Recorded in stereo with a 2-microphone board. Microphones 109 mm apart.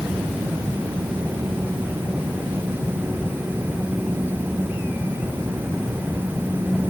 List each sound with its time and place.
Only background noise.